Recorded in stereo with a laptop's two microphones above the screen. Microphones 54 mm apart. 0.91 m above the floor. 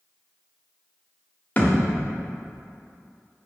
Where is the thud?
30° left (ahead or behind), 1.1 m.